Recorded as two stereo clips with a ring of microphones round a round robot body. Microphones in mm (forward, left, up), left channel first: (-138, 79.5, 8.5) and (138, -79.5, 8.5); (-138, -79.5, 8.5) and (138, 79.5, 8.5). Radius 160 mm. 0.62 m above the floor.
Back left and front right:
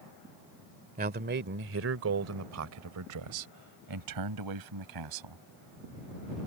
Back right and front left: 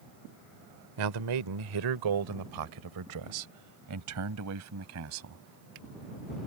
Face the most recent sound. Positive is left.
turn(degrees=-15)